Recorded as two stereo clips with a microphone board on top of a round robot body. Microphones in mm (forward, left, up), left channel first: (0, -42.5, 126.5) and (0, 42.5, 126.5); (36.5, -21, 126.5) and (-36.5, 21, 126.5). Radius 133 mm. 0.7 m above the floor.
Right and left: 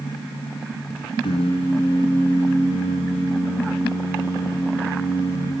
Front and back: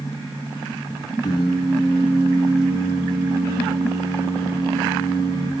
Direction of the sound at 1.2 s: 80° right.